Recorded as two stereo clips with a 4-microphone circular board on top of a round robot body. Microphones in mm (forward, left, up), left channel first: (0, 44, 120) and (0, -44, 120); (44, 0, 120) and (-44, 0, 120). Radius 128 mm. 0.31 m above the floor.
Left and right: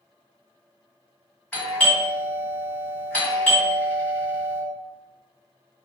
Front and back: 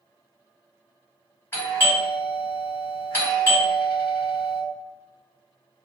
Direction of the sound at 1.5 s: 30° left.